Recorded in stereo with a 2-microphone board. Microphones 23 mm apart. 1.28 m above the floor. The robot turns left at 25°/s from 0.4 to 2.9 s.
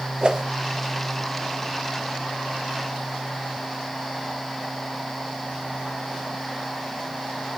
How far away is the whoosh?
About 0.9 m.